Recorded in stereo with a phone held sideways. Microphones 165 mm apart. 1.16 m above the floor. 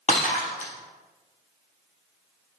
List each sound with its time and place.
0.1 s breaking glass: 45° left (ahead or behind), 3 m